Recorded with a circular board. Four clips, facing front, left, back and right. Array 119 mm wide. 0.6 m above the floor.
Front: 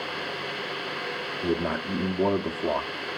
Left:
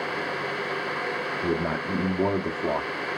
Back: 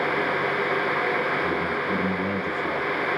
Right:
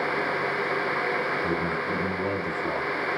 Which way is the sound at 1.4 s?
55° left.